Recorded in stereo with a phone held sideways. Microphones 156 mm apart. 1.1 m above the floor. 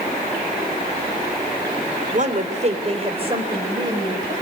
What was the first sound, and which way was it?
A woman speaking, 50° right (ahead or behind).